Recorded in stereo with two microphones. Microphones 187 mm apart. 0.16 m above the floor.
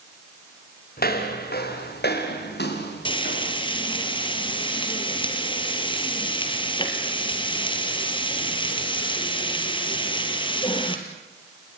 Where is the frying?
25° left (ahead or behind), 2.5 m.